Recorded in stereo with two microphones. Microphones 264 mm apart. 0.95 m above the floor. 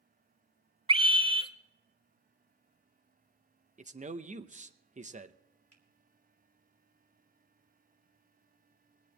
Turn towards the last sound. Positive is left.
turn(degrees=-70)  # may be behind; listen again after turning